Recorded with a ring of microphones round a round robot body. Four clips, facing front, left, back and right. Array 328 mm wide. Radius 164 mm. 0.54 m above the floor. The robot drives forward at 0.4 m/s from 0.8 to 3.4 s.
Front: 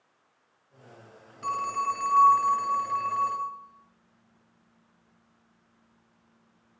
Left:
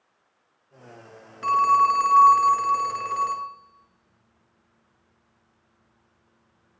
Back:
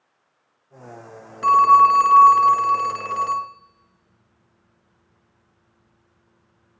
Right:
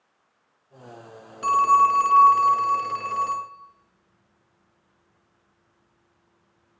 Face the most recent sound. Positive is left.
turn(degrees=-175)